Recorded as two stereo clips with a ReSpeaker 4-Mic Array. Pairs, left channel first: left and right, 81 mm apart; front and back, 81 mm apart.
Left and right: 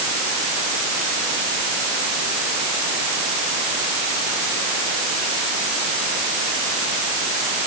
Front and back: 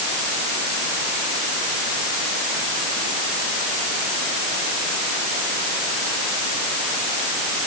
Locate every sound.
Only background noise.